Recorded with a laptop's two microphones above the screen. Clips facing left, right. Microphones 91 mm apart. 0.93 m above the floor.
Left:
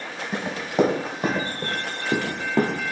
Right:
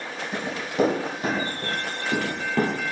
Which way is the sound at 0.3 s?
45° left (ahead or behind).